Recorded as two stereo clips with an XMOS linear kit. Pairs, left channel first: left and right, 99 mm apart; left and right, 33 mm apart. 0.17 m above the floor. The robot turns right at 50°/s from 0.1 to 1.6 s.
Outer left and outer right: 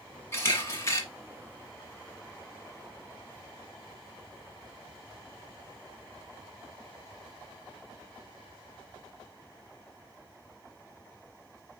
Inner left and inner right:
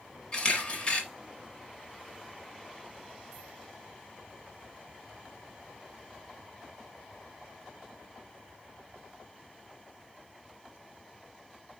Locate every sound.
0.3 s a camera shutter: 25° left (ahead or behind), 1.2 m; by 1.0 s 30° left (ahead or behind), 1.2 m